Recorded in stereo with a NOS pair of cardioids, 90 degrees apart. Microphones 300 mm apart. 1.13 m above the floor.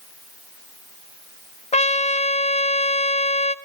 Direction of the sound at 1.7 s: 20° left.